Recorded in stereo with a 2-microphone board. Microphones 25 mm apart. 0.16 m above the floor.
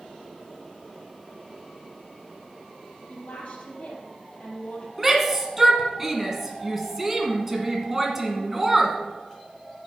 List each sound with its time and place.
3.1 s a woman speaking: 70° left (ahead or behind), 3.5 m
5.0 s a shout: 15° right (ahead or behind), 1.5 m